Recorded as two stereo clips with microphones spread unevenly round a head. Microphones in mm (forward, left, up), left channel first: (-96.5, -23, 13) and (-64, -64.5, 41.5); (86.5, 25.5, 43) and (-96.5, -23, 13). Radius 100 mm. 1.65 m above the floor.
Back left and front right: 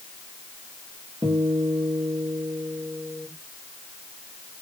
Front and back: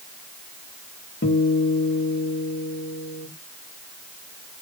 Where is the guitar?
20° right, 2 m.